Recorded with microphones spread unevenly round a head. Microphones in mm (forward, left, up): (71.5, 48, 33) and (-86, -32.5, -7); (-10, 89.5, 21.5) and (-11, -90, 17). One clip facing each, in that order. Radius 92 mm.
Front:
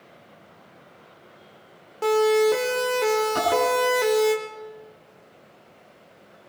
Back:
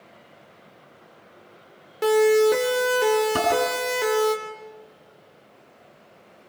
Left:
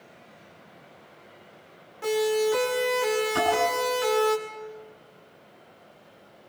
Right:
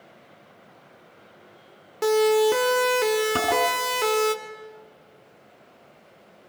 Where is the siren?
85° right, 3 m; by 4.3 s 60° right, 2 m.